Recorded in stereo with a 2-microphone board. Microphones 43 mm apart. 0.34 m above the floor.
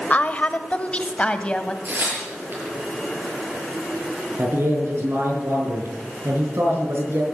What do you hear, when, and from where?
0.1 s a woman speaking: 35° left (ahead or behind), 1.0 m; by 1.8 s 25° left (ahead or behind), 1.7 m
1.9 s tearing paper: 55° right (ahead or behind), 7 m
4.4 s a man speaking: 75° right (ahead or behind), 5.5 m